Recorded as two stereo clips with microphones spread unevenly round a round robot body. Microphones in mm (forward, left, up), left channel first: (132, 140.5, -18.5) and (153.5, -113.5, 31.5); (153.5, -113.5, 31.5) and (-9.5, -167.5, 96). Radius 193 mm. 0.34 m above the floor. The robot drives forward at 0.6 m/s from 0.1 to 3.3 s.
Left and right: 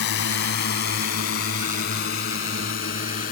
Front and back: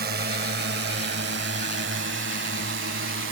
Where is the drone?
140° left; by 3.3 s 160° left.